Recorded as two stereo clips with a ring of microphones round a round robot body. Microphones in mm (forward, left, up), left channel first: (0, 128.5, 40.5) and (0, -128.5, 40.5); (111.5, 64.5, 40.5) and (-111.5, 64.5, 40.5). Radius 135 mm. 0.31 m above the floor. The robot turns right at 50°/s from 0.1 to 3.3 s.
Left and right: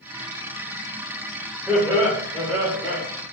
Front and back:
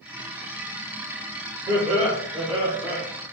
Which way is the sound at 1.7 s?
170° right.